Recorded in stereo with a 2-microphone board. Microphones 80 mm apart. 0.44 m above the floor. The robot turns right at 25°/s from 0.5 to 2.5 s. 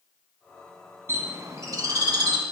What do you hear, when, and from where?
1.1 s a bird: 145° right, 1.4 m; by 2.4 s 115° right, 1.4 m